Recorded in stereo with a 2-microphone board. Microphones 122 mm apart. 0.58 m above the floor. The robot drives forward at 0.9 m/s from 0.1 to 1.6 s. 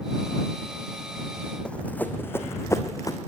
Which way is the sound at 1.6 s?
10° left (ahead or behind).